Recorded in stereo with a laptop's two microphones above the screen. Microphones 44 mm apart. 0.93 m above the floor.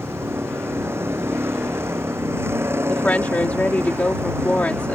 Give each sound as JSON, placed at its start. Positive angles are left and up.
{"t": 0.0, "sound": "a vehicle", "side_deg": -70}
{"t": 2.9, "sound": "a woman speaking", "side_deg": 40}